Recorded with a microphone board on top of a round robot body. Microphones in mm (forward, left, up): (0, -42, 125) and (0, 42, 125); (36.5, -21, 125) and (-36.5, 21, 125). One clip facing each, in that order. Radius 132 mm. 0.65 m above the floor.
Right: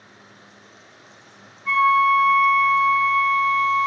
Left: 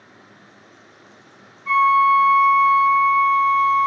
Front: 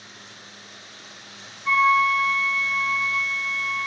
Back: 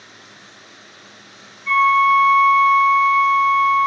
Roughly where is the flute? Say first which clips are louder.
Left 2 dB, back 5 dB; right.